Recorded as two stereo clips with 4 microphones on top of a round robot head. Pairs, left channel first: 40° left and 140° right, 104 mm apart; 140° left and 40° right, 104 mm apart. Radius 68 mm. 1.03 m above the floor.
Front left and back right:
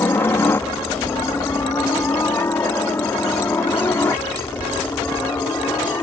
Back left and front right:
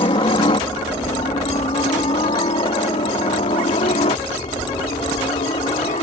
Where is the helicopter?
105° left.